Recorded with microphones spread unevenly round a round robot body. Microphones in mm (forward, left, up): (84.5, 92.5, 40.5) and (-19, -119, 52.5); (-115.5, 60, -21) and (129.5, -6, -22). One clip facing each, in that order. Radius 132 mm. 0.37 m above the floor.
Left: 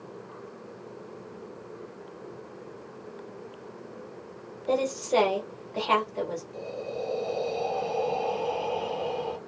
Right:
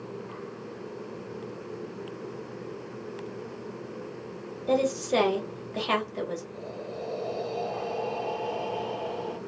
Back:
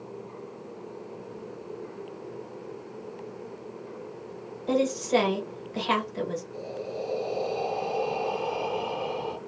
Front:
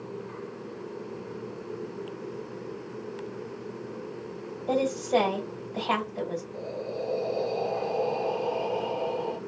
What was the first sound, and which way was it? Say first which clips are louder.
A woman speaking: right 1 dB, back 1 dB; 170° right.